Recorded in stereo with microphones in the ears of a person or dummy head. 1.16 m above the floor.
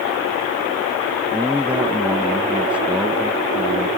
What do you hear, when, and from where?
1.3 s a man speaking: 5° right (ahead or behind)